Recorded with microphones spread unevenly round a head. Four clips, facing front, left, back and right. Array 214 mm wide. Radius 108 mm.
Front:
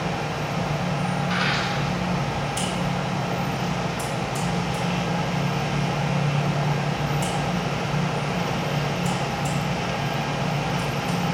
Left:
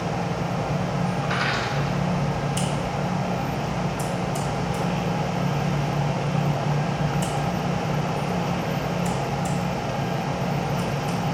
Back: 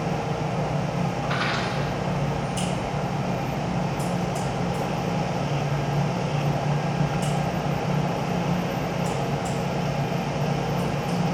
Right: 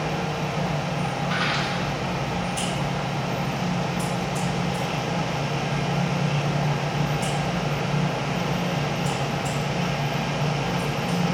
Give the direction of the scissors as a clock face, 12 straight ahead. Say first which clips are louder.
Left 1 dB, front 1 dB; 10 o'clock.